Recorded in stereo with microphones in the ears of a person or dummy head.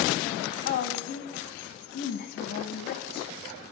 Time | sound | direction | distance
0.7 | a woman speaking | 55° left (ahead or behind) | 1.5 m